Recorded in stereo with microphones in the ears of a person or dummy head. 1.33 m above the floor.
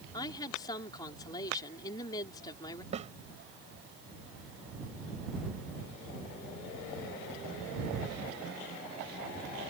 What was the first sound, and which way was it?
A woman speaking, 30° left (ahead or behind).